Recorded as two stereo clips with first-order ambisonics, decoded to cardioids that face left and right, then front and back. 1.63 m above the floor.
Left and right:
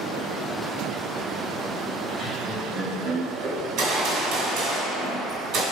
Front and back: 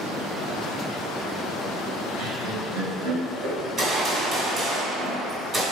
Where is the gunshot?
120° right, 2 m.